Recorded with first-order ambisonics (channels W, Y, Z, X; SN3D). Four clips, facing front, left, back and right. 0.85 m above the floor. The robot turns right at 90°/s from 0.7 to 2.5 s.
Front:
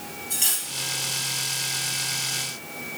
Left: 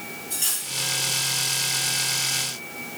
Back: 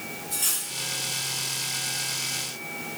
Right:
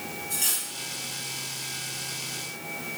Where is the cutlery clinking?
5° right, 3 m; by 0.7 s straight ahead, 3 m.